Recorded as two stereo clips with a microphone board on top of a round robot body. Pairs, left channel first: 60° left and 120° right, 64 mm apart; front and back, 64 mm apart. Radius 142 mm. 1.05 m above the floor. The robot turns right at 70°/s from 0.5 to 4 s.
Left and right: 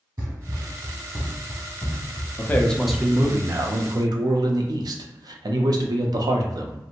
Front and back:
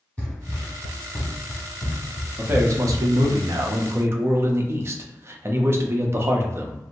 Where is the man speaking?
115° left, 0.6 m; by 6.8 s 130° right, 0.6 m.